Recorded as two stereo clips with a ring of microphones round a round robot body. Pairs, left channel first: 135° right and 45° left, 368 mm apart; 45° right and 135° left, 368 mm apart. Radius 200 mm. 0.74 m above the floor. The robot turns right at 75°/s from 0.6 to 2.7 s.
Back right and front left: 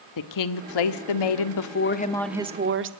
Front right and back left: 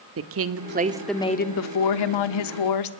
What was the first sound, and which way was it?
A woman speaking, 170° right.